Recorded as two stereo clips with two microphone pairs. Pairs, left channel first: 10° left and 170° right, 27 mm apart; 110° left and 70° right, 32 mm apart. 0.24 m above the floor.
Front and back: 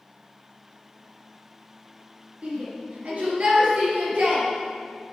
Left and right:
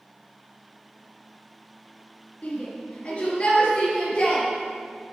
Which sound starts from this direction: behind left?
A shout, at 2.4 s.